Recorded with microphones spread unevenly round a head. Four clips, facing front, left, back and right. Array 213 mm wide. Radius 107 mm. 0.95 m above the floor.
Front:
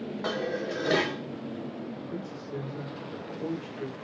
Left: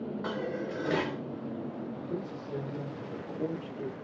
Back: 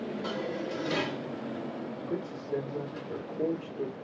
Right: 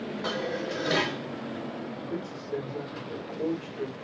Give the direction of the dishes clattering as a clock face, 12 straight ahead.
12 o'clock.